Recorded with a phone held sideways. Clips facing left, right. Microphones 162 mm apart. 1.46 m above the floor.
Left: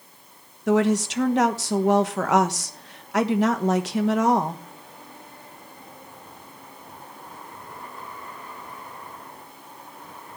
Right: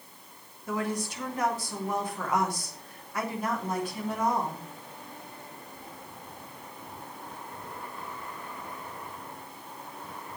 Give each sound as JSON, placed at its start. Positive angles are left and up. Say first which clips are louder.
{"t": 0.7, "sound": "a woman speaking", "louder": "left 11 dB", "side_deg": 80, "distance_m": 1.2}